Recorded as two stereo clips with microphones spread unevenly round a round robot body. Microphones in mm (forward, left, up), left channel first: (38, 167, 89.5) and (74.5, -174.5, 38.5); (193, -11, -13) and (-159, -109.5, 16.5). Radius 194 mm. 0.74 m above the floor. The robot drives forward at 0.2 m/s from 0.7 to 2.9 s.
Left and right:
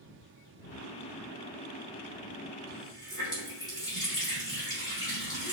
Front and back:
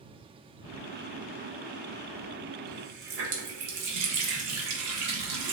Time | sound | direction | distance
2.7 | a running tap | straight behind | 0.8 m